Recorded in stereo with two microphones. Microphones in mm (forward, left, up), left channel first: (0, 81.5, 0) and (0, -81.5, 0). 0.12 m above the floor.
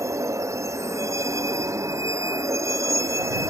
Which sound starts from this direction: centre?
A vehicle, at 0.0 s.